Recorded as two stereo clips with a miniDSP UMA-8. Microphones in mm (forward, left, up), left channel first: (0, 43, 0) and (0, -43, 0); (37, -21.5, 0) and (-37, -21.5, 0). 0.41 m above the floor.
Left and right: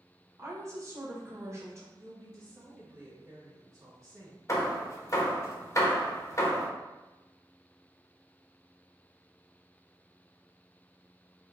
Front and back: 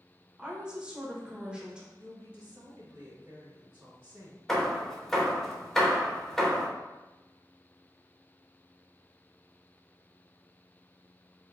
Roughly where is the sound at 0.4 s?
Right.